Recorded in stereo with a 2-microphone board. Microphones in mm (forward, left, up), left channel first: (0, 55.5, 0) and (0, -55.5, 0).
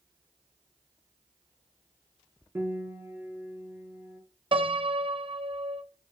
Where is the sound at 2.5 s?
20° right (ahead or behind), 1.0 m.